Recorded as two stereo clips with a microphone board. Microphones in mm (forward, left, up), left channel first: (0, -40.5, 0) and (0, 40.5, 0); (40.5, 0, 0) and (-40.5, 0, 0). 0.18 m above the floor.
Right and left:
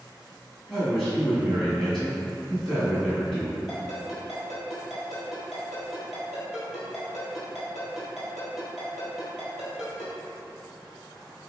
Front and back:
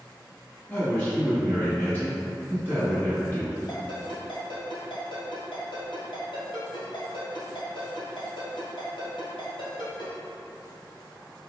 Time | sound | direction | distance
0.7 | a man speaking | 5° right | 1.7 m
3.7 | a ringtone | straight ahead | 2.0 m